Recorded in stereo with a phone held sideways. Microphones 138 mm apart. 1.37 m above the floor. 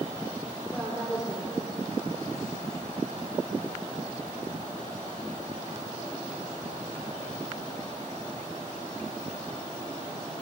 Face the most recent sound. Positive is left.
turn(degrees=-5)  # may be behind; listen again after turning